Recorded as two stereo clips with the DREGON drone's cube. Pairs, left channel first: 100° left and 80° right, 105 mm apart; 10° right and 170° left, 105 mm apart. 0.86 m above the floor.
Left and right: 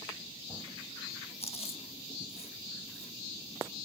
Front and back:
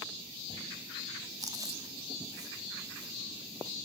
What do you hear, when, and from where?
1.4 s chewing: 115° left, 1.0 m